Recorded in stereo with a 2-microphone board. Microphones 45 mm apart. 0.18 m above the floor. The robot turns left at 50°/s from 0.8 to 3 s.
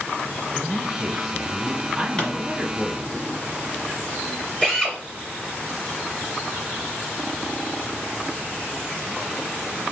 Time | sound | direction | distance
0.6 | a man speaking | 5° left (ahead or behind) | 1.0 m
2.2 | a pop | 20° left (ahead or behind) | 1.5 m
4.6 | a drill | 30° left (ahead or behind) | 2 m